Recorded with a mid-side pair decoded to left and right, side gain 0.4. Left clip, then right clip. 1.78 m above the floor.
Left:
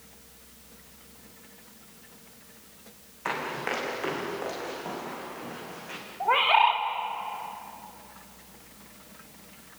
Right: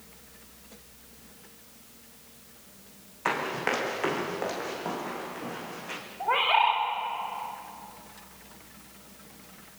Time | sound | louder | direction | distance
3.2 | running footsteps | right 2 dB | 35° right | 6 m
6.2 | a bird | left 2 dB | 25° left | 3.5 m